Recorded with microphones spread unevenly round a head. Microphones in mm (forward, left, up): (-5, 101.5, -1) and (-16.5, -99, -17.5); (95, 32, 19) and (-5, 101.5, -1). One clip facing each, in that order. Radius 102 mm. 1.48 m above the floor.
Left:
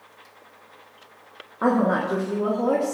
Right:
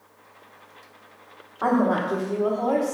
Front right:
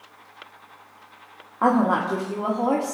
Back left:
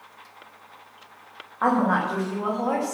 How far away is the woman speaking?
About 1.6 m.